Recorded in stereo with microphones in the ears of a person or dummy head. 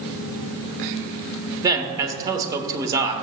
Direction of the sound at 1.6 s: 20° right (ahead or behind).